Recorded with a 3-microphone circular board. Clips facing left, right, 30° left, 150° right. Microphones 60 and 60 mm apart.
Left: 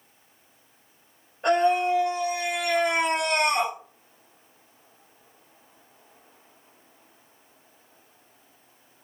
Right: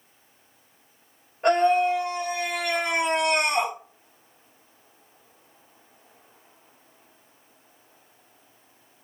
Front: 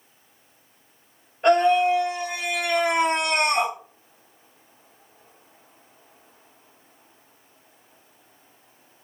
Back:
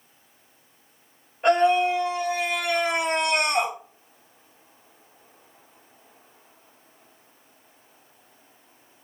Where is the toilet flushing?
No toilet flushing in this recording.